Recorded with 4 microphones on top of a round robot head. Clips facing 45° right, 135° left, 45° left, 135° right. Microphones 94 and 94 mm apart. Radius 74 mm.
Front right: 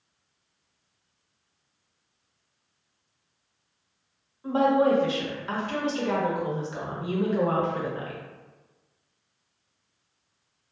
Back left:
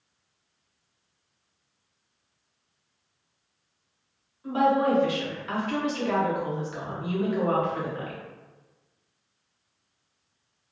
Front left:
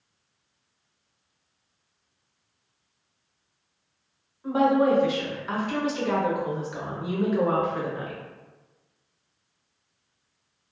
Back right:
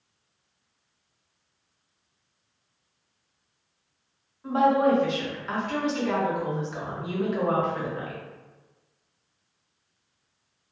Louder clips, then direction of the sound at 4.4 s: Front right 1 dB, even; 35° right.